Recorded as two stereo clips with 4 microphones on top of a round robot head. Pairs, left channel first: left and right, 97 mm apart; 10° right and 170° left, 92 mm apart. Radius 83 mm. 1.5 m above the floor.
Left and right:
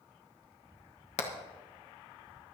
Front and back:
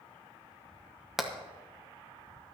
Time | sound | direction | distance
1.2 | hammering | 85° left | 1.4 m